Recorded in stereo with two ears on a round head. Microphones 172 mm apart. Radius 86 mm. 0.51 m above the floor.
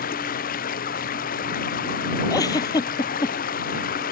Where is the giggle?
20° left (ahead or behind).